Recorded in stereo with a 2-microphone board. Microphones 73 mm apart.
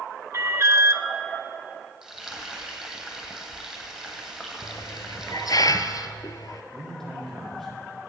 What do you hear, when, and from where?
0.3 s an alarm: 40° right (ahead or behind), 0.9 m
2.0 s frying: 5° right (ahead or behind), 2.5 m
4.6 s a hiss: 65° left (ahead or behind), 0.6 m
6.7 s a man speaking: 5° left (ahead or behind), 5 m